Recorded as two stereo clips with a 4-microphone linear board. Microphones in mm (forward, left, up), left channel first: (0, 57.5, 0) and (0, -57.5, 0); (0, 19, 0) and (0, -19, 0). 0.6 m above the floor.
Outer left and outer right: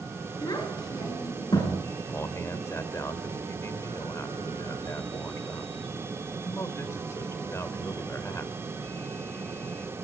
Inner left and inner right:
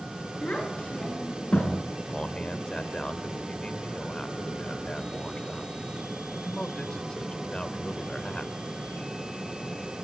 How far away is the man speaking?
About 2.5 m.